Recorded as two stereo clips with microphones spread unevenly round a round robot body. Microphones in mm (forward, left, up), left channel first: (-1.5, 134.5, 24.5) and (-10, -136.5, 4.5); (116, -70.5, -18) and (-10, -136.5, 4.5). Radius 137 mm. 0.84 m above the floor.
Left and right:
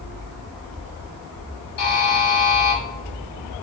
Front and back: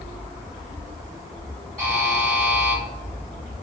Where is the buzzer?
120° left, 1.5 m.